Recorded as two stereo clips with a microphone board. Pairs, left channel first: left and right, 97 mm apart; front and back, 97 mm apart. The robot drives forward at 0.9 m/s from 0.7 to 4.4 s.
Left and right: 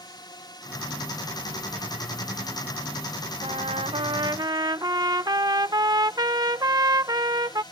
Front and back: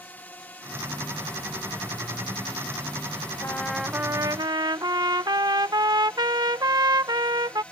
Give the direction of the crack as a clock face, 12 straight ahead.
No crack in this recording.